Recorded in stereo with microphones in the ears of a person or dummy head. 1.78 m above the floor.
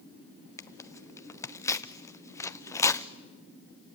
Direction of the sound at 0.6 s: 15° left (ahead or behind).